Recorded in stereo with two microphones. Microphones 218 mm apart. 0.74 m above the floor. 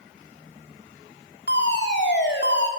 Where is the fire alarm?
55° left (ahead or behind), 3 m.